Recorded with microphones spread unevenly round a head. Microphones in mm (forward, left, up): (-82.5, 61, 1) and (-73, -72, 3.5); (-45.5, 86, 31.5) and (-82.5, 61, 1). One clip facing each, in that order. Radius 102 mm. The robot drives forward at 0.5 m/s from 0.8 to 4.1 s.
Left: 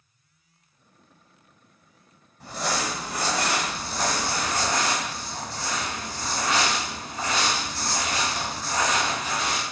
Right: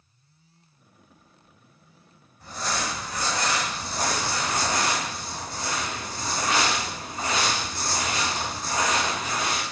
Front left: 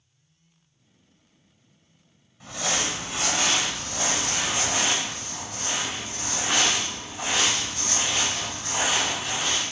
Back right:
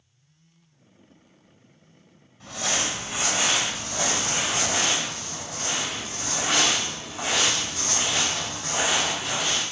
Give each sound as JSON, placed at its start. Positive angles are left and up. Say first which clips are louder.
{"t": 2.4, "sound": "crumpling", "louder": "left 2 dB, even", "azimuth_deg": 95, "distance_m": 1.1}
{"t": 3.8, "sound": "crumpling", "louder": "left 1 dB, back right 1 dB", "azimuth_deg": -145, "distance_m": 1.8}